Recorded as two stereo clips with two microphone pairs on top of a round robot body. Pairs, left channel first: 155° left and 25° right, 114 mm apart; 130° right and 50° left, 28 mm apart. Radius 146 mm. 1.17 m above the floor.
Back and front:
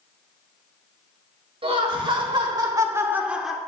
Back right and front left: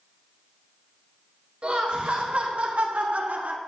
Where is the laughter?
10° left, 2.5 m; by 3.6 s 65° left, 1.3 m.